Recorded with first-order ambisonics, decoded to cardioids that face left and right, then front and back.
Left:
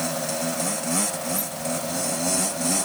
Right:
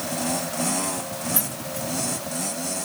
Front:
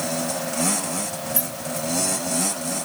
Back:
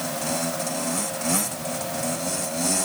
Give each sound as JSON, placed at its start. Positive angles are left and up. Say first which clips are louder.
{"t": 1.3, "sound": "keys jangling", "louder": "left 2 dB, back 1 dB", "azimuth_deg": -45, "distance_m": 4.0}